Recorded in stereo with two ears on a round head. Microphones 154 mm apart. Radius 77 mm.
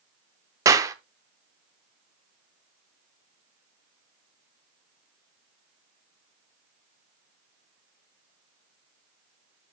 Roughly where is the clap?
Centre.